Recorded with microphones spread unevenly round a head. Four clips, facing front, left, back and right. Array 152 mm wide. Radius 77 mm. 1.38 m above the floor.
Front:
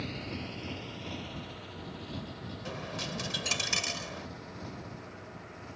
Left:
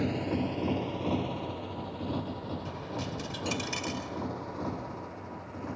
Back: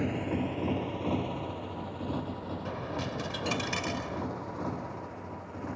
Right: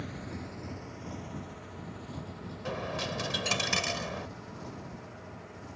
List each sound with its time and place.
0.0 s a motorcycle: 125° left; by 5.8 s 130° left
2.6 s a dropped coin: 95° right